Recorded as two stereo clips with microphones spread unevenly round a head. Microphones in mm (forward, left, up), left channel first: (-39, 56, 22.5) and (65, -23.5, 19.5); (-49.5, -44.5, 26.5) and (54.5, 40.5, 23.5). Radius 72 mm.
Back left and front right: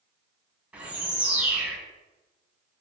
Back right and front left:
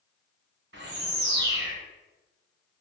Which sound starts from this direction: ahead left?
A bird, at 0.7 s.